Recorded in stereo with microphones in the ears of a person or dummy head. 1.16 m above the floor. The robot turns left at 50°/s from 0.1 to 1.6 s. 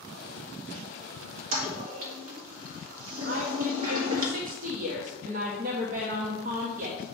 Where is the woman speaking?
40° right (ahead or behind), 0.9 m.